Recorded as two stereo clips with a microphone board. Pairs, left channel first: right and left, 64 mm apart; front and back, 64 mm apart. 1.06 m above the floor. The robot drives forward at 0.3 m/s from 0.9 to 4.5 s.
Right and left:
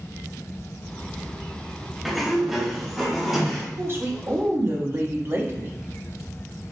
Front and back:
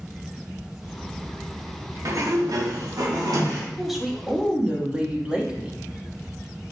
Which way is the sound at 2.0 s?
175° left.